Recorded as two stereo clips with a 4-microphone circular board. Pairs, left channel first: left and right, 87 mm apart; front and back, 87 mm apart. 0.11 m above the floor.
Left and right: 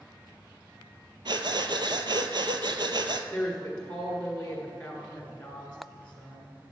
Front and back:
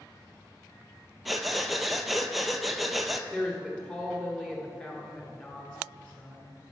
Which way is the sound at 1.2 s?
90° right.